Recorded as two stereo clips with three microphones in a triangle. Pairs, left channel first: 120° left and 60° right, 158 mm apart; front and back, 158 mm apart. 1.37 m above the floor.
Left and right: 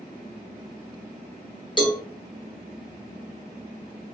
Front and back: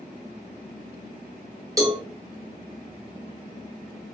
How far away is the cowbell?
About 1.2 m.